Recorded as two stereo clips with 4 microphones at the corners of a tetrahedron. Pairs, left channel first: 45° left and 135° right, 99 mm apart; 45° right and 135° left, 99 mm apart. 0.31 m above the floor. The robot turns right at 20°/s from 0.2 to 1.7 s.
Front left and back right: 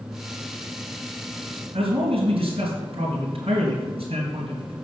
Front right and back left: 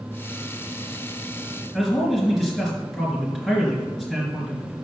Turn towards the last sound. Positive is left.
turn(degrees=-135)